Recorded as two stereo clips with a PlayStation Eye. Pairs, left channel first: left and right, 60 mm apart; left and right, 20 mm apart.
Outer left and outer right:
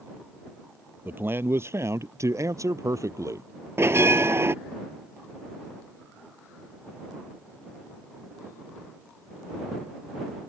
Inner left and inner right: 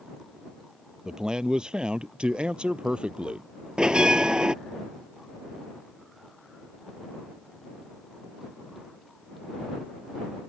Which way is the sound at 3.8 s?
45° right (ahead or behind).